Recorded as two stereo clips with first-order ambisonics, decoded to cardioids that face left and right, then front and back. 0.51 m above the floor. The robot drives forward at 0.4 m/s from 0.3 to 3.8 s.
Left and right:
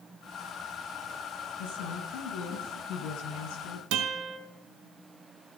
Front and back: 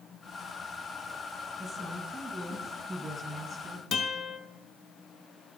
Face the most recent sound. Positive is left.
turn(degrees=-80)